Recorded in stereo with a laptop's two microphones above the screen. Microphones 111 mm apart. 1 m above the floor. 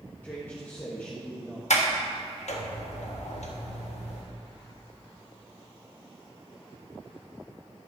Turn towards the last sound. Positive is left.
turn(degrees=80)